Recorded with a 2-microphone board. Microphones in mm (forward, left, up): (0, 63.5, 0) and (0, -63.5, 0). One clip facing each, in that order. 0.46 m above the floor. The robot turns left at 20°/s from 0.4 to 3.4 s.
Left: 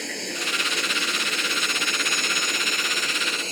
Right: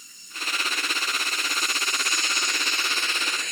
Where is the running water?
95° left; by 3.5 s 35° left.